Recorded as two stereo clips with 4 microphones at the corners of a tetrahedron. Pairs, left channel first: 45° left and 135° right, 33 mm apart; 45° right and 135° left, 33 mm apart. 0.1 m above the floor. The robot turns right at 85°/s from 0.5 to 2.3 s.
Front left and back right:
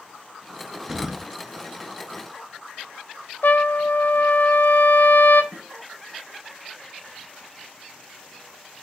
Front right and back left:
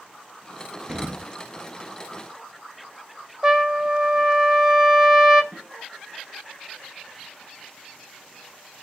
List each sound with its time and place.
0.9 s an explosion: 150° left, 0.6 m; by 1.3 s 170° right, 0.6 m
3.4 s a trumpet: 65° left, 0.6 m
5.5 s a snare drum: 160° left, 6 m